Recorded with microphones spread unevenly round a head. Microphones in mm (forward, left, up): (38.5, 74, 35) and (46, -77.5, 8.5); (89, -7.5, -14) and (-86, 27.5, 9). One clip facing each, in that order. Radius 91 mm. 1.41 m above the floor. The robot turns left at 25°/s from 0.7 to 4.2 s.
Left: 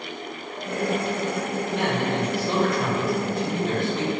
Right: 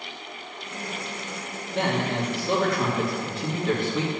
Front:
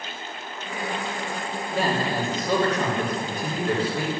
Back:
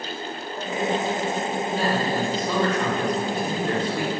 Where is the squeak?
I don't hear a squeak.